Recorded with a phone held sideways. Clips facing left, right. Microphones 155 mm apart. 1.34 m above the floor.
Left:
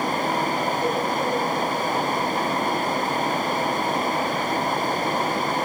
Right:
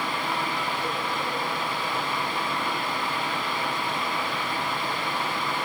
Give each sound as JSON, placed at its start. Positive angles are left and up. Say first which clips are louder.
{"t": 0.0, "sound": "a fan", "louder": "left 6 dB", "side_deg": 40, "distance_m": 1.0}